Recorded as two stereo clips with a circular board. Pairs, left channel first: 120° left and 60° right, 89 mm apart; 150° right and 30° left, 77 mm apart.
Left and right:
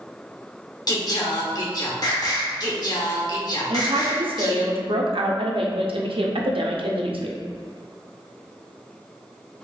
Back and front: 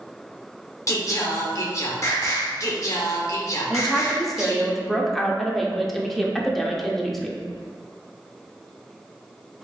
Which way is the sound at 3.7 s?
65° right.